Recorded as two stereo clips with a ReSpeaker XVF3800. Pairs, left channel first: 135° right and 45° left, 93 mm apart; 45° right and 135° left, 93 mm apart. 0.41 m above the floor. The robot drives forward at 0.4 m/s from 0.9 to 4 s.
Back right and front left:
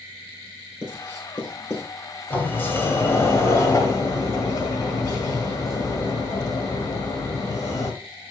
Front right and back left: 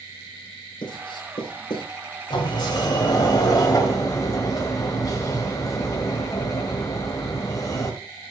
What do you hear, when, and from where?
0.8 s writing: 70° right, 4 m; by 1.9 s 75° right, 4 m
2.3 s a sliding door: 65° right, 2 m; by 8.0 s 90° right, 1.9 m